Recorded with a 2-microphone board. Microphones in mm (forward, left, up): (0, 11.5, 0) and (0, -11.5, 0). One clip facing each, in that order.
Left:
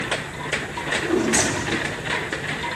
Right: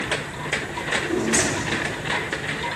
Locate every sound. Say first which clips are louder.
0.8 s a drawer: left 3 dB; 40° left (ahead or behind), 1.9 m